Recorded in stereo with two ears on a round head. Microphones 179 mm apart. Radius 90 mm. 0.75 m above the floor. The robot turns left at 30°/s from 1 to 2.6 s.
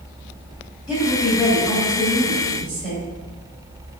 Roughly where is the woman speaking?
Ahead.